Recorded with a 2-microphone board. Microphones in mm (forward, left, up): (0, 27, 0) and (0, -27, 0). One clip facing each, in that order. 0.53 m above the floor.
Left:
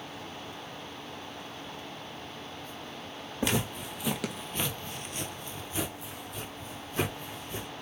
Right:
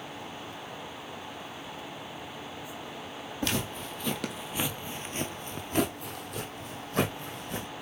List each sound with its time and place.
3.4 s footsteps: 15° left (ahead or behind), 1.2 m; by 7.7 s 50° right (ahead or behind), 1.7 m